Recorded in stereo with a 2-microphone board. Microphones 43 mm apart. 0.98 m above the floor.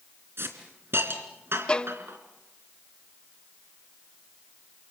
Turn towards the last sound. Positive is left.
turn(degrees=25)  # may be behind; listen again after turning